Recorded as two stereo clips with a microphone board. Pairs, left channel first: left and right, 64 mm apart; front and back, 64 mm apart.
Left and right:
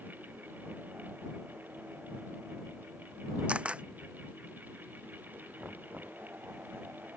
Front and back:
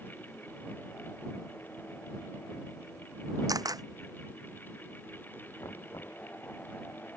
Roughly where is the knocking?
Ahead right.